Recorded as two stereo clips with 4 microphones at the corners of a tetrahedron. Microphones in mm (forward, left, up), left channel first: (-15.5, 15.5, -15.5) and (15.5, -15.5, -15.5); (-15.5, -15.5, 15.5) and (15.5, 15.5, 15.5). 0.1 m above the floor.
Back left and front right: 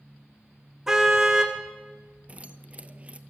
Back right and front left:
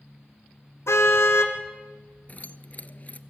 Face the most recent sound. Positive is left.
turn(degrees=-95)